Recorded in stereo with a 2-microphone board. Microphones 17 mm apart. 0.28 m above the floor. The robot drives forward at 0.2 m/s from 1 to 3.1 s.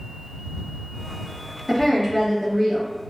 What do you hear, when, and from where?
1.7 s a woman speaking: 10° right (ahead or behind), 1.0 m